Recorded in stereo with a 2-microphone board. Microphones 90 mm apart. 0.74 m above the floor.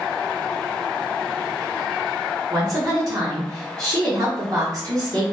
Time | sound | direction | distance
2.5 | a woman speaking | 40° right (ahead or behind) | 1.1 m